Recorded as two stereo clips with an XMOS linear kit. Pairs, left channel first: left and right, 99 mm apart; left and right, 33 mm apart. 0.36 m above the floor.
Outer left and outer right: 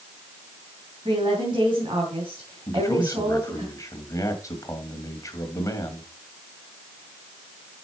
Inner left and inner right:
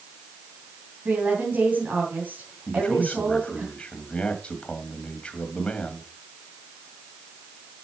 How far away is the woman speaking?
About 3.5 m.